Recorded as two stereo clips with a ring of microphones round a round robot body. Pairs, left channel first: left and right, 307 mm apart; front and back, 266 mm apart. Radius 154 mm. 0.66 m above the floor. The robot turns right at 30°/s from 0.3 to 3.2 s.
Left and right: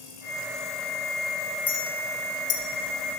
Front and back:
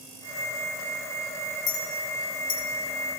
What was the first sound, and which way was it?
A clink, 5° left.